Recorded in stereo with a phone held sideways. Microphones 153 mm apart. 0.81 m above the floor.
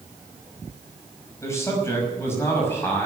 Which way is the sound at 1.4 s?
20° left (ahead or behind).